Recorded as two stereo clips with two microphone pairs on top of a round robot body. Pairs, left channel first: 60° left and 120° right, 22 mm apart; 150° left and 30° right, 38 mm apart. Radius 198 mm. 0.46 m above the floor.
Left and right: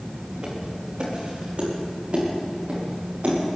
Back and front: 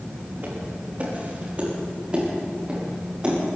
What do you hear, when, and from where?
0.4 s footsteps: 70° right, 5 m; by 3.3 s 95° right, 8 m